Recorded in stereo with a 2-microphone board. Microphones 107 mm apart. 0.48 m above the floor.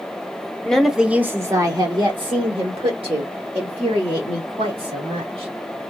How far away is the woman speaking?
About 1.0 m.